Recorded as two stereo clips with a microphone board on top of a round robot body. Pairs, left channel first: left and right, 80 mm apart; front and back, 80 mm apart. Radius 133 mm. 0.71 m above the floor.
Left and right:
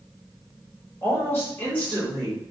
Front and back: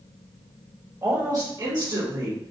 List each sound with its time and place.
1.0 s a woman speaking: 140° left, 1.6 m; by 2.5 s 170° left, 1.9 m